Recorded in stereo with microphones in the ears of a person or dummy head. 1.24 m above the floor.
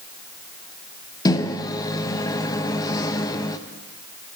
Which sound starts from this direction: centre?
A microwave, at 1.2 s.